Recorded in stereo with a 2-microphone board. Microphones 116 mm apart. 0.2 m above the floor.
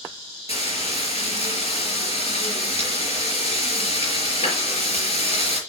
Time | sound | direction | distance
0.5 | frying | 70° left (ahead or behind) | 4.5 m